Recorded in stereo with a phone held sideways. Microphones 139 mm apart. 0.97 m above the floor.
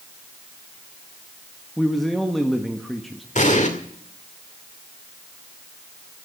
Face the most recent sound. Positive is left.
turn(degrees=60)  # may be behind; listen again after turning